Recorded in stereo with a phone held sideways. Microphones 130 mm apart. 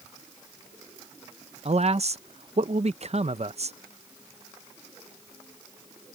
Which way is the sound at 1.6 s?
55° right (ahead or behind).